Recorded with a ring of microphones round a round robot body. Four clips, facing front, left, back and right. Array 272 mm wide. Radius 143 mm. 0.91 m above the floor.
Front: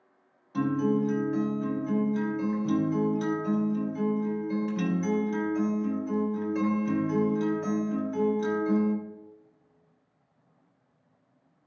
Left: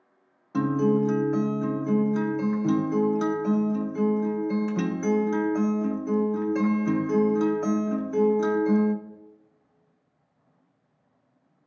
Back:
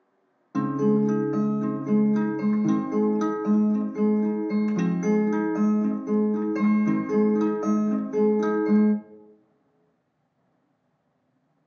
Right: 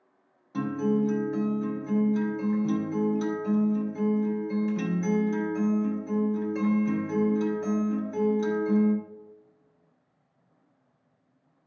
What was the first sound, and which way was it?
A guitar, 145° left.